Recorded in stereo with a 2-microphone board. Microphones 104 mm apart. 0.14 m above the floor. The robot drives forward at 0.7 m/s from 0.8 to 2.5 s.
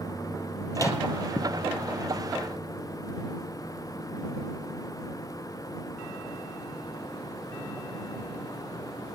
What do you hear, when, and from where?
0.8 s a microwave: 30° left (ahead or behind), 2.5 m